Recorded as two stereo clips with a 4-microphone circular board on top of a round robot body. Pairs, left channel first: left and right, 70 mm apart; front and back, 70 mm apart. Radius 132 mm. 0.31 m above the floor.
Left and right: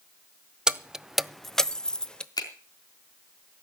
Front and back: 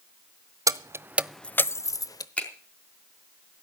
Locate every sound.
0.7 s keys jangling: 170° right, 0.9 m; by 2.3 s 15° left, 1.2 m
2.4 s a finger snap: 75° left, 4.5 m